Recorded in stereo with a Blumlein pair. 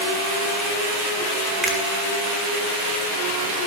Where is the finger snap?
5° right, 1.1 m.